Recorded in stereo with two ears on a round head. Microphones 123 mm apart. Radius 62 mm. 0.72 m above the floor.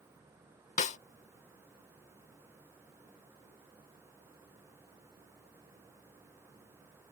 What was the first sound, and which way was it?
A snare drum, 60° left (ahead or behind).